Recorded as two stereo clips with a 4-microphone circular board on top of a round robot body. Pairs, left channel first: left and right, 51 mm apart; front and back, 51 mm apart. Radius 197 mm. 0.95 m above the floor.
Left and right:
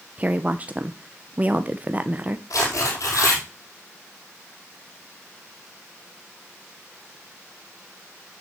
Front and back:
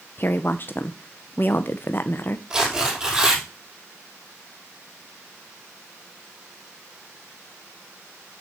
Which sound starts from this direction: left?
Tearing paper, at 2.5 s.